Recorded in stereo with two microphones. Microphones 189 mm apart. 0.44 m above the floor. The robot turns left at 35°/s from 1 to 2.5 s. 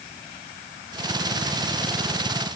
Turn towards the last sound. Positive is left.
No sound to turn to.